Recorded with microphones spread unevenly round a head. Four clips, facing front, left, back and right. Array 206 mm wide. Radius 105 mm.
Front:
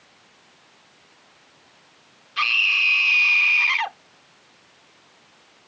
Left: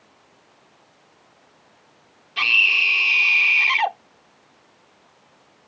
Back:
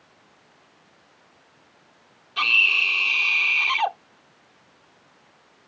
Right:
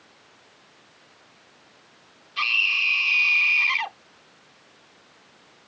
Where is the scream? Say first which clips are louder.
Left 4 dB, even; 120° left.